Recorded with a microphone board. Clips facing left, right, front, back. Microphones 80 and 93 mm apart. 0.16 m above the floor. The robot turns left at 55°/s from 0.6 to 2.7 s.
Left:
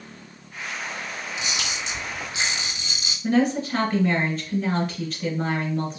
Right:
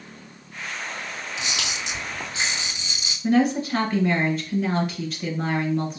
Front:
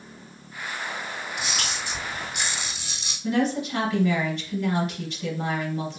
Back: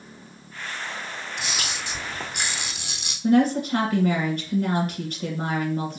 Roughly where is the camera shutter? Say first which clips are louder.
Right 1 dB, even; right.